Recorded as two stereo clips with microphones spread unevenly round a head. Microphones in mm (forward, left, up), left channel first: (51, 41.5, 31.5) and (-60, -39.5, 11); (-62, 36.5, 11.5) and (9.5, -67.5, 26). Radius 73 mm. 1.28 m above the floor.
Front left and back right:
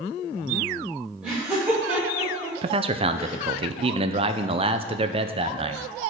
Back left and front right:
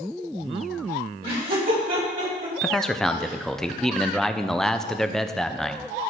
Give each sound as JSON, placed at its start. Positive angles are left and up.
{"t": 1.2, "sound": "laughter", "azimuth_deg": -60, "distance_m": 4.5}
{"t": 2.6, "sound": "a man speaking", "azimuth_deg": -155, "distance_m": 0.6}